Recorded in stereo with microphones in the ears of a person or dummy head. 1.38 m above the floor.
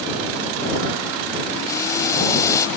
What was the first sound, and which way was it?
Boiling, 20° left (ahead or behind).